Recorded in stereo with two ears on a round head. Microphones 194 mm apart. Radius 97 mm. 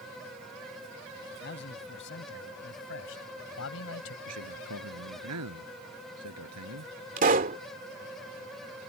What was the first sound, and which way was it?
A man speaking, 55° left (ahead or behind).